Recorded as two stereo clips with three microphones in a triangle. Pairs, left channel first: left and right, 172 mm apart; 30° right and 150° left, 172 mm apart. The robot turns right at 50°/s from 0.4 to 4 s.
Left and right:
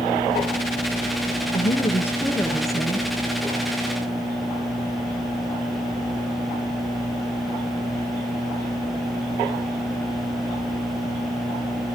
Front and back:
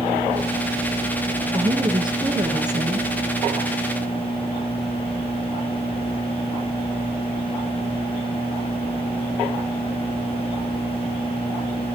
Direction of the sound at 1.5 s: 120° left.